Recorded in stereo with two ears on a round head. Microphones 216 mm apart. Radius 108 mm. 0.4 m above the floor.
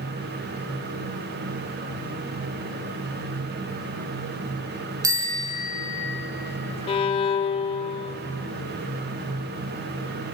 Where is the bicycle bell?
15° right (ahead or behind), 3.5 m.